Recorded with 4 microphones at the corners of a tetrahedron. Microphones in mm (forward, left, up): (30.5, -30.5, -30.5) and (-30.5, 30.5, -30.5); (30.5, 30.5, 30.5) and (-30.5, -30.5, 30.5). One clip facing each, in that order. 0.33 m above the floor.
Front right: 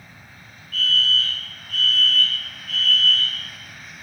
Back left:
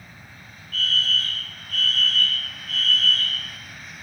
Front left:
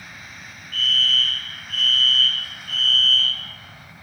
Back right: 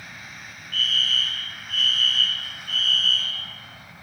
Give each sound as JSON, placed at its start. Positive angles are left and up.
{"t": 0.7, "sound": "a fire alarm", "azimuth_deg": 135, "distance_m": 2.5}